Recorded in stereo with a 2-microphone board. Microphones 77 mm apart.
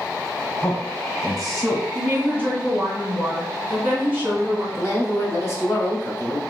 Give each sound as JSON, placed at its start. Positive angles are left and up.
{"t": 0.6, "sound": "a man speaking", "side_deg": 0, "distance_m": 1.4}
{"t": 1.9, "sound": "a woman speaking", "side_deg": -20, "distance_m": 1.4}
{"t": 4.8, "sound": "a woman speaking", "side_deg": 35, "distance_m": 1.2}